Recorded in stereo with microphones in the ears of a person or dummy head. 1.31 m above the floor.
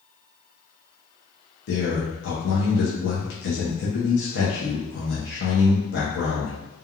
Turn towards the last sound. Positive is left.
turn(degrees=75)  # may be behind; listen again after turning